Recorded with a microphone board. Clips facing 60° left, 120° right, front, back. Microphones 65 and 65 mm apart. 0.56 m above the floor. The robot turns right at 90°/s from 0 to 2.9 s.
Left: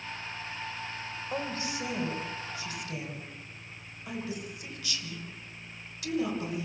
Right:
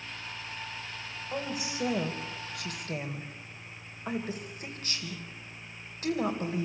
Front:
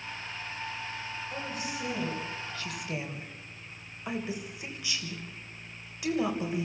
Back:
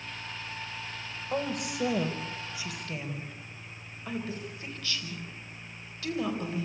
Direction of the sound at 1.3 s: 145° left.